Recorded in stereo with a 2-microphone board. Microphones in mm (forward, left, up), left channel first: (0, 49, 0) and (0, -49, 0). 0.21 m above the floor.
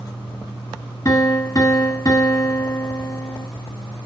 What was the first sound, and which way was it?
A piano, 35° left (ahead or behind).